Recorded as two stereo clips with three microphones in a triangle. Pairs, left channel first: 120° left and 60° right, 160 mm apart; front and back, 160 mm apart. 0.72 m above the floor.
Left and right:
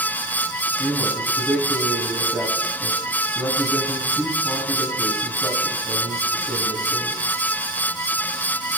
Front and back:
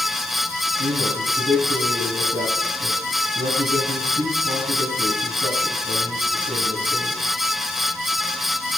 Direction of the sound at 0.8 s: 160° right.